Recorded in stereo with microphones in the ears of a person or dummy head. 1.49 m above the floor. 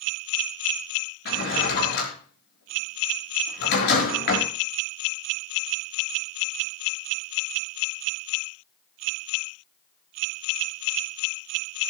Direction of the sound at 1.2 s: 60° left (ahead or behind).